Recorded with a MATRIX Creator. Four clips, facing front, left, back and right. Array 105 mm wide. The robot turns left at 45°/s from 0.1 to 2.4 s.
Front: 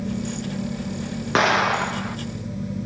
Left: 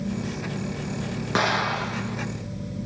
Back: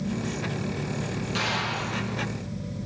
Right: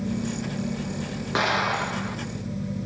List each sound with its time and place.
1.4 s an explosion: 10° left, 0.6 m; by 2.2 s 25° right, 0.6 m